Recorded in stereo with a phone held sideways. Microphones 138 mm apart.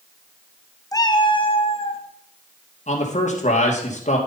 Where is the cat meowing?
25° left (ahead or behind), 0.6 m; by 2.0 s 45° left (ahead or behind), 1.1 m.